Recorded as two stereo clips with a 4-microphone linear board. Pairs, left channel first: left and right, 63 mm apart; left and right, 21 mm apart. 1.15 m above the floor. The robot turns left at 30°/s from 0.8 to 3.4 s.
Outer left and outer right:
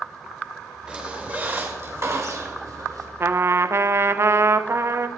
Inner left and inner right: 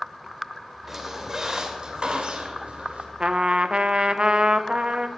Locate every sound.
0.9 s a squeak: 20° right, 2 m; by 3.1 s 85° right, 2 m
3.2 s a trumpet: 40° right (ahead or behind), 0.6 m; by 5.1 s 45° right (ahead or behind), 0.6 m